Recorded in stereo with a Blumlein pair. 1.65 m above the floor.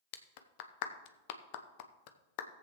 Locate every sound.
0.1 s a clap: 45° left, 0.7 m